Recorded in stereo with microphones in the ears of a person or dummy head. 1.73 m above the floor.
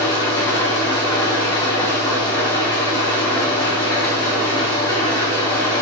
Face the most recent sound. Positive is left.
turn(degrees=20)  # may be behind; listen again after turning